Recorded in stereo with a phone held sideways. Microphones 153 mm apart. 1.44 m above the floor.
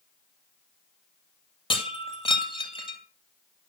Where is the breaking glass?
35° left (ahead or behind), 2 m.